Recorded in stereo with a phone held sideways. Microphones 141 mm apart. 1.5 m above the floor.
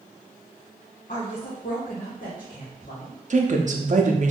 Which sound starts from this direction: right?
A woman speaking, at 3.3 s.